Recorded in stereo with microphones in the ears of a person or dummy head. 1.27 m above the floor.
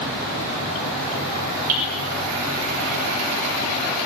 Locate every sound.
1.7 s hammering: 85° right, 6.5 m